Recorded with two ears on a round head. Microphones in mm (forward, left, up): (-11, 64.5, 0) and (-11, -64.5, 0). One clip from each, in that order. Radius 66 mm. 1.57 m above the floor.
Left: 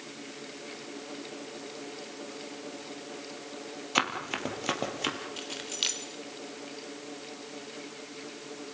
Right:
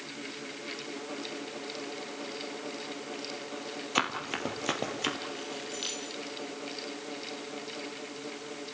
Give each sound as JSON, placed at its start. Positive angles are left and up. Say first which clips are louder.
{"t": 4.0, "sound": "running footsteps", "louder": "left 2 dB", "side_deg": 10, "distance_m": 3.0}
{"t": 5.4, "sound": "keys jangling", "louder": "left 4 dB", "side_deg": 45, "distance_m": 3.5}